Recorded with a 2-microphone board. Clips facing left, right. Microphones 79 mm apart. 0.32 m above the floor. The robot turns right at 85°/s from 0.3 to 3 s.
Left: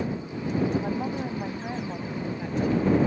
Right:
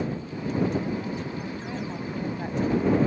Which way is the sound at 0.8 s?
70° left.